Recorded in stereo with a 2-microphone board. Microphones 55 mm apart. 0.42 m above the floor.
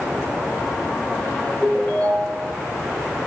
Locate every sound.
1.6 s a ringtone: 20° left (ahead or behind), 2.5 m